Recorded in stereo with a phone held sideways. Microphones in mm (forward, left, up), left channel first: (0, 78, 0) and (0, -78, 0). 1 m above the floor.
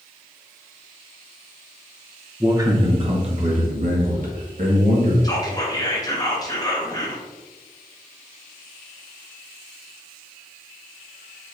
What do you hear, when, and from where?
2.4 s a man speaking: 15° right (ahead or behind), 0.6 m; by 5.1 s 65° right (ahead or behind), 1.7 m
5.2 s whispering: 25° left (ahead or behind), 0.9 m